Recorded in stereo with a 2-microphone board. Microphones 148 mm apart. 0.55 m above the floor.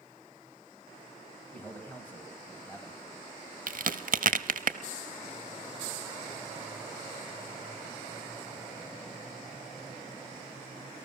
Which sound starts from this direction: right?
A crack, at 3.7 s.